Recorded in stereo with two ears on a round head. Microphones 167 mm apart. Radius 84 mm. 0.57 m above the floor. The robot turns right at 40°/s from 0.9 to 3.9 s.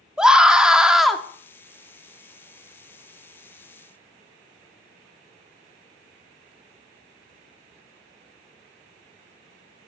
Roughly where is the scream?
Centre.